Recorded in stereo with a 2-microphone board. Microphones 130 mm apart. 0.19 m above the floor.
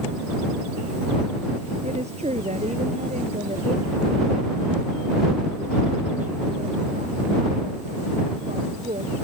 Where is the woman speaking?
55° right (ahead or behind); by 9.2 s 70° right (ahead or behind).